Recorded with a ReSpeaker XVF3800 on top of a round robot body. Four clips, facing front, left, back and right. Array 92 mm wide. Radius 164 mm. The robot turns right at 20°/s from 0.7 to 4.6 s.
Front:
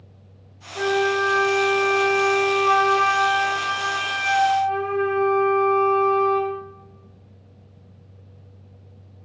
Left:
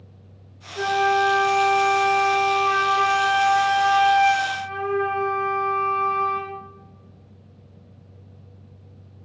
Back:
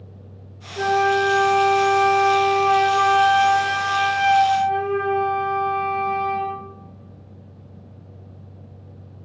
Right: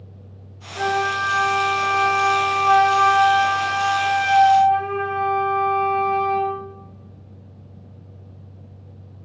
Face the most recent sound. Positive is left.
turn(degrees=60)